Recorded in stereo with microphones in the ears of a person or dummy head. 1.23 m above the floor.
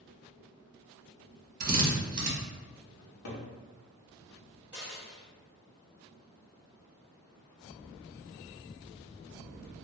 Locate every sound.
1.6 s a drill: 45° right (ahead or behind), 0.9 m
3.0 s a cupboard door: 60° left (ahead or behind), 0.7 m
4.7 s a dropped coin: 5° right (ahead or behind), 0.7 m